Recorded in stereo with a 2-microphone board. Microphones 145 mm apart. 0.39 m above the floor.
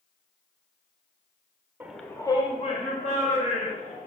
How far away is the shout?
About 0.9 m.